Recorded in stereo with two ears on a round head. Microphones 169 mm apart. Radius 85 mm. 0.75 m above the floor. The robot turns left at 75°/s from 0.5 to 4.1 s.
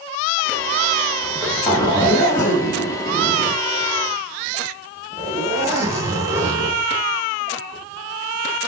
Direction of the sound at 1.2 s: 10° right (ahead or behind).